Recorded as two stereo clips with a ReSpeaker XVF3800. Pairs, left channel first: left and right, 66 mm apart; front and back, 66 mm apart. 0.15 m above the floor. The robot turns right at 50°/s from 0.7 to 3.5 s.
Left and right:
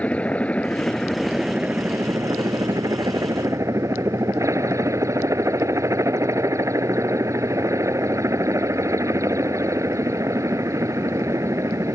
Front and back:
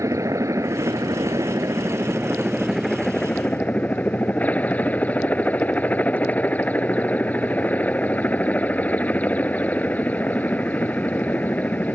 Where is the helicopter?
155° left; by 11.9 s 65° right.